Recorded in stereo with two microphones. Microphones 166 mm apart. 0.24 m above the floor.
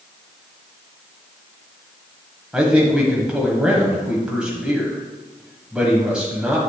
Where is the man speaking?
5° right (ahead or behind), 1.2 m.